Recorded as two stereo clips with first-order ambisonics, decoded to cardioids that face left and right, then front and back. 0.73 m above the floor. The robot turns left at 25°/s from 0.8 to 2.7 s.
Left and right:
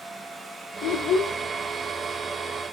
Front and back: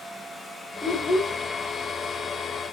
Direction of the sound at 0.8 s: 65° left.